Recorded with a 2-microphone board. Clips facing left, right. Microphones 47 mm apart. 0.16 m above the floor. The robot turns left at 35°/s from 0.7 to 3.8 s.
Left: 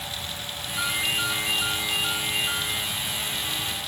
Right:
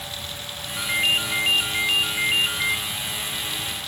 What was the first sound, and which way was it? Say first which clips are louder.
A ringtone: right 4 dB; 40° right.